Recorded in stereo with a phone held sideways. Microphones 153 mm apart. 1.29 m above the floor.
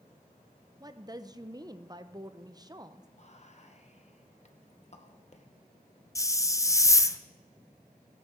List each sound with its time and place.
0.8 s a woman speaking: 25° right (ahead or behind), 0.7 m
3.2 s whispering: 45° left (ahead or behind), 1.3 m
6.2 s a hiss: 20° left (ahead or behind), 0.5 m